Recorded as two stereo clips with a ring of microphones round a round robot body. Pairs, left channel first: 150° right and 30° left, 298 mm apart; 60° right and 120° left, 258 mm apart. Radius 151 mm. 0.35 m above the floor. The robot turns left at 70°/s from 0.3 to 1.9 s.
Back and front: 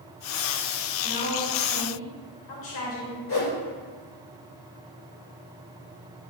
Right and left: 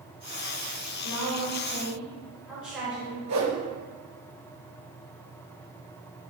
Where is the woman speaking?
85° right, 3.5 m; by 3.2 s 150° right, 3.5 m.